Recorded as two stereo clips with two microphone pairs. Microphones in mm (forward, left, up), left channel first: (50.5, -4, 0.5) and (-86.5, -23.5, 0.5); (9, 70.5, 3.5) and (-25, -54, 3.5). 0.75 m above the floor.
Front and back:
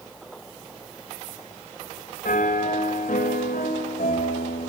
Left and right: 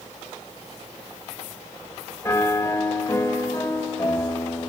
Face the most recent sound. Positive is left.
turn(degrees=5)